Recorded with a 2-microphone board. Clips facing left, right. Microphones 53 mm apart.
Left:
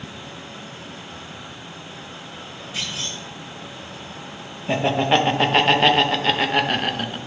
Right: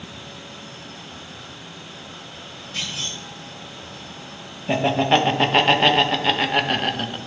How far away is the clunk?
About 3 m.